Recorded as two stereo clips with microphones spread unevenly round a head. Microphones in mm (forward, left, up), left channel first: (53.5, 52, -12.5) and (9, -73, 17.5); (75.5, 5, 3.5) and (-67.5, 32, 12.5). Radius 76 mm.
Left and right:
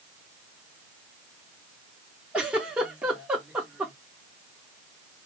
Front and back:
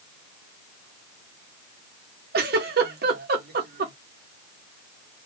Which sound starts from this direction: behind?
A giggle, at 2.3 s.